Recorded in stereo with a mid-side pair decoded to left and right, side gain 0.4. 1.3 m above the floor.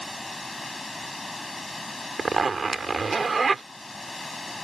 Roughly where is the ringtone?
I don't hear a ringtone.